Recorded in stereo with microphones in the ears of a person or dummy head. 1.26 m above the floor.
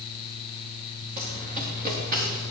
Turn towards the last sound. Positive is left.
turn(degrees=-50)  # may be behind; listen again after turning